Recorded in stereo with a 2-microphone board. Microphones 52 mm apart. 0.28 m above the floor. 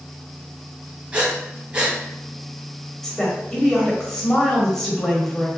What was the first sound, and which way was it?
Breathing, 25° right (ahead or behind).